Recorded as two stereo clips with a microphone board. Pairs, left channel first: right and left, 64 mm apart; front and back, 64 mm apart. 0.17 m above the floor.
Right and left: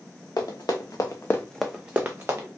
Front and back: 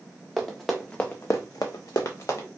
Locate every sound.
0.4 s running footsteps: 90° right, 1.0 m; by 2.5 s 40° left, 1.0 m